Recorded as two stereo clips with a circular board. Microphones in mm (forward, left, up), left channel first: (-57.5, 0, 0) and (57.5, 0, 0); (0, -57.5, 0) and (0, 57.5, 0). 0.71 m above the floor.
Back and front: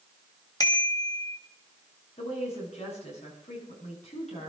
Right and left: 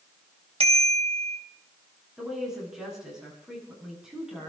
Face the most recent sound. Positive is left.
turn(degrees=175)